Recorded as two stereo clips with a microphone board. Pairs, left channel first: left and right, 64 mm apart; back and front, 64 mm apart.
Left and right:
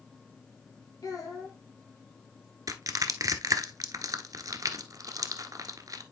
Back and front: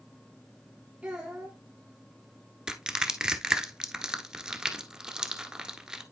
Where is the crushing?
80° right, 1.0 m.